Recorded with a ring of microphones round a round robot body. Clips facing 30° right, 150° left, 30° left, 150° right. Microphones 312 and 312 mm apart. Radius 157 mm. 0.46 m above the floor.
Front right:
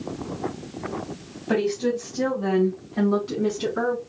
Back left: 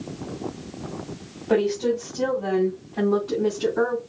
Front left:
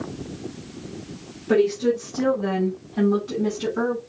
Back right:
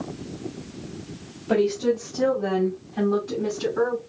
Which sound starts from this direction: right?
A woman speaking, at 1.5 s.